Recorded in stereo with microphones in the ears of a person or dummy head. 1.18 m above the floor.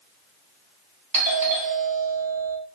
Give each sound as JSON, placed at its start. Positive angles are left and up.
{"t": 1.1, "sound": "a doorbell", "side_deg": -30, "distance_m": 0.9}